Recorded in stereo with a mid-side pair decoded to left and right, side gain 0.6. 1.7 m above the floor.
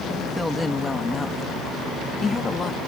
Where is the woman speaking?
5° left; by 2.8 s 30° left.